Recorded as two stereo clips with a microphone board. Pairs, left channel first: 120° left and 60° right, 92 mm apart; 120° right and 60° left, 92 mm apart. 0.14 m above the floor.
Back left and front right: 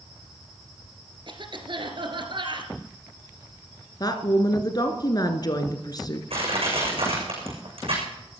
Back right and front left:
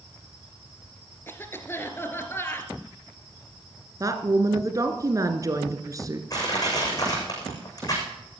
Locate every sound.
1.3 s a cough: 60° right, 2.5 m
4.0 s a woman speaking: 100° left, 1.6 m
6.3 s crushing: 70° right, 6.5 m